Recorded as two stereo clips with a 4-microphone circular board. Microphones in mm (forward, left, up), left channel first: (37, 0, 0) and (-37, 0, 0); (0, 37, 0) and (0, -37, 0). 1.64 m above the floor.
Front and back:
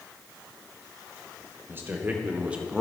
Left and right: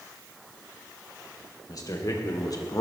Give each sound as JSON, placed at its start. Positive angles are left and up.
{"t": 1.7, "sound": "a man speaking", "azimuth_deg": 125, "distance_m": 1.4}